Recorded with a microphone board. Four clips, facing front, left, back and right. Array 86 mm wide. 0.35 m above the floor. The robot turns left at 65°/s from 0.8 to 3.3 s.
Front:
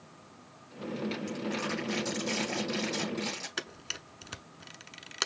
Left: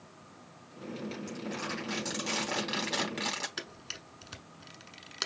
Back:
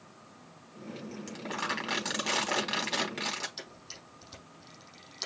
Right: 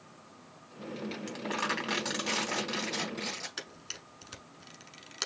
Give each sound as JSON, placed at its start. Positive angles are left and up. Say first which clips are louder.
{"t": 1.3, "sound": "crumpling", "louder": "right 7 dB, front 2 dB", "azimuth_deg": -105, "distance_m": 3.0}
{"t": 3.6, "sound": "a camera shutter", "louder": "left 2 dB, front 6 dB", "azimuth_deg": 5, "distance_m": 0.9}